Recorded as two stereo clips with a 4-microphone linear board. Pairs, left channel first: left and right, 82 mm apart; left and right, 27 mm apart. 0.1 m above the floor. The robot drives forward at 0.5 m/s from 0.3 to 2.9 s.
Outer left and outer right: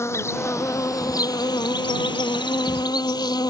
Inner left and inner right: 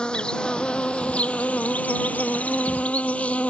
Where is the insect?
30° left (ahead or behind); by 3.5 s 55° left (ahead or behind).